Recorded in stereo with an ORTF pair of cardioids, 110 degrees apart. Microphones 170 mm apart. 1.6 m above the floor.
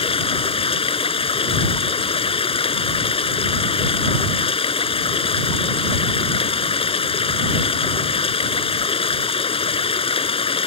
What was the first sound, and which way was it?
Running water, 35° left.